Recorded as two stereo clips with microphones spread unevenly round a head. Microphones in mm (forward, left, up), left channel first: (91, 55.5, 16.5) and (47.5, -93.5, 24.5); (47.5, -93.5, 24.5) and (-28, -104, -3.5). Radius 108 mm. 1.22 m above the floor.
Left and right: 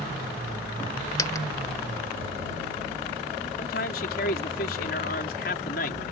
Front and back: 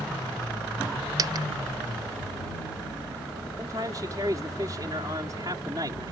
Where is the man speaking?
120° left.